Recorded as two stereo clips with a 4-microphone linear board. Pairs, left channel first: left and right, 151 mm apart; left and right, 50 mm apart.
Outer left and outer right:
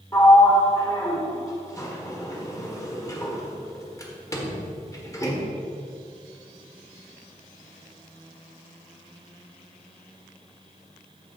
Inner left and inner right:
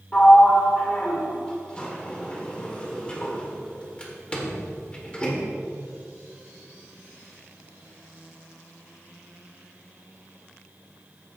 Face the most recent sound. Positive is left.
turn(degrees=20)  # may be behind; listen again after turning